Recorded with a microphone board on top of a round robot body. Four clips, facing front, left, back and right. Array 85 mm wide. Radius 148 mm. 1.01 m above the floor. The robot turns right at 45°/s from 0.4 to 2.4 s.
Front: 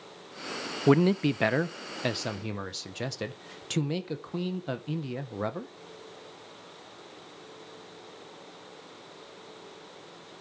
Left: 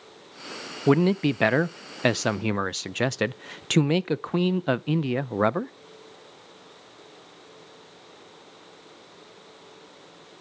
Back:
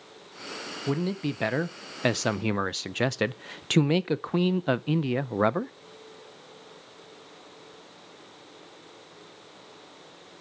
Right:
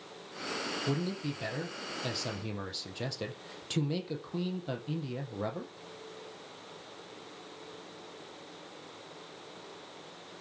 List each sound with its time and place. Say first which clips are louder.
0.9 s a man speaking: left 16 dB, front 7 dB; 55° left, 0.6 m; by 5.7 s 125° left, 0.6 m